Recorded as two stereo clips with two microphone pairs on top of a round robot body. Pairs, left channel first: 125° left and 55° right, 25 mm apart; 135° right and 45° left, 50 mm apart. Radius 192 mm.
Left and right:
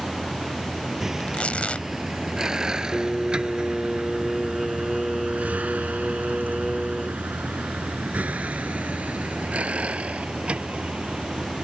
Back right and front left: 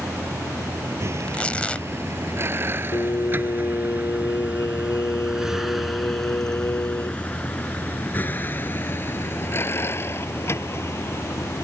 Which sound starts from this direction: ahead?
A vehicle, at 0.0 s.